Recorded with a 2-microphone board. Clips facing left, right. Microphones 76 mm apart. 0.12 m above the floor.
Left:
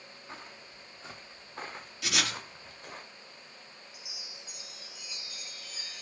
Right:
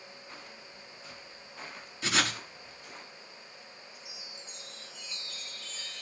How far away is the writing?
About 1.5 m.